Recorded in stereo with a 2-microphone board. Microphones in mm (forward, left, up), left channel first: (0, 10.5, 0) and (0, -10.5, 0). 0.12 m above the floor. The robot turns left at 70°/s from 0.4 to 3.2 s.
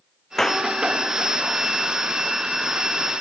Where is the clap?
20° left (ahead or behind); by 0.7 s 40° left (ahead or behind).